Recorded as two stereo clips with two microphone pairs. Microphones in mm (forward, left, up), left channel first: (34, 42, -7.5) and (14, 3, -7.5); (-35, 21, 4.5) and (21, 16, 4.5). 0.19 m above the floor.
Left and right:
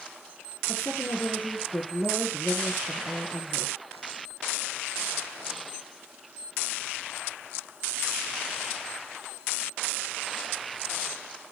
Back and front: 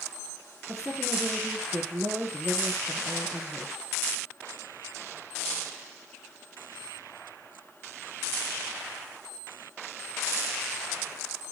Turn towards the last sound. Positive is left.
turn(degrees=60)